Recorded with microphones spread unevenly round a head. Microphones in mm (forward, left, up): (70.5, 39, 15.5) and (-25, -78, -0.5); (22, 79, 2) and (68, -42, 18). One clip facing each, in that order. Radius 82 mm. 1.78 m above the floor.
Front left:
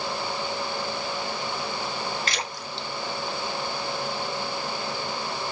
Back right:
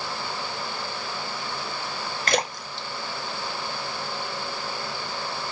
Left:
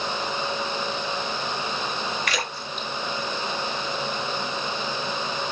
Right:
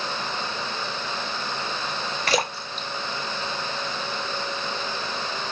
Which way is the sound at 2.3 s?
105° right.